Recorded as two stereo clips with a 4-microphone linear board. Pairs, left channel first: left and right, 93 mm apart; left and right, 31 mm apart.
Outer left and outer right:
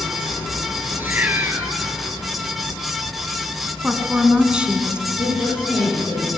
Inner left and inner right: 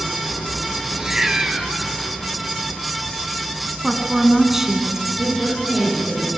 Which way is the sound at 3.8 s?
10° right (ahead or behind).